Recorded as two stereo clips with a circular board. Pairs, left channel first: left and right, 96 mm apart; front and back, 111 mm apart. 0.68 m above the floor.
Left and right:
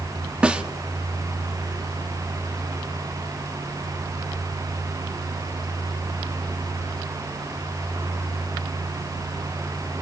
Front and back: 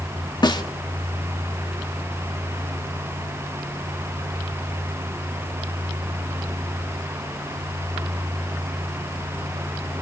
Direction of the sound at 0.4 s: 15° right.